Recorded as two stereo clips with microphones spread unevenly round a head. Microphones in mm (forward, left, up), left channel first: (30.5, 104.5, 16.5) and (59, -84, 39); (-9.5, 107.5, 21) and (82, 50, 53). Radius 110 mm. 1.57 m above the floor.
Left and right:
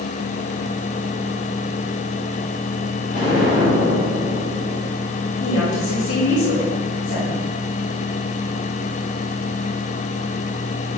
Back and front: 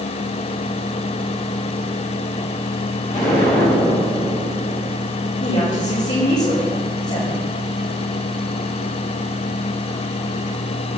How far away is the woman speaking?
About 4 m.